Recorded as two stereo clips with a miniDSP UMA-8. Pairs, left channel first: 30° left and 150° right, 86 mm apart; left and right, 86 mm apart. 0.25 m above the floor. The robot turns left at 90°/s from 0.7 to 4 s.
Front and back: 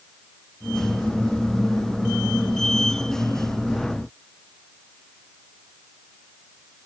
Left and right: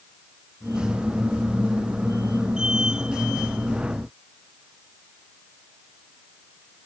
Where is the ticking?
I don't hear ticking.